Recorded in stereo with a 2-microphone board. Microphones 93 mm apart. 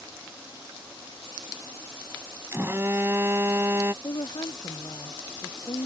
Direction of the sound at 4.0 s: 50° left (ahead or behind).